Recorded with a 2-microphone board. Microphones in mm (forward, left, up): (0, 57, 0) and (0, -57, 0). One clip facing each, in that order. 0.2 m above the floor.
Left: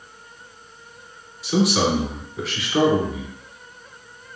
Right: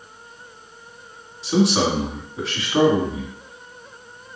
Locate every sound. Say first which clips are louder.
1.4 s a man speaking: right 1 dB; 25° right (ahead or behind), 1.7 m